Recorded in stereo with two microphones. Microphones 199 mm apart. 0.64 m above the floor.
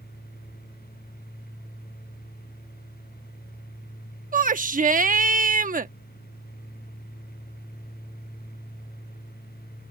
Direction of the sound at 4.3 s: 40° right (ahead or behind).